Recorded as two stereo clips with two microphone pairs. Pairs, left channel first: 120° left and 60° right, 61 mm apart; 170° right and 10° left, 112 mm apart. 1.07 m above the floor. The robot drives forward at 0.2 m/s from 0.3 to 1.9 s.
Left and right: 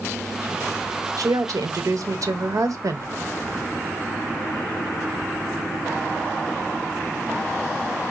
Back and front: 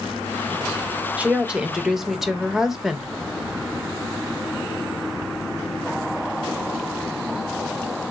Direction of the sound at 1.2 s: 65° right.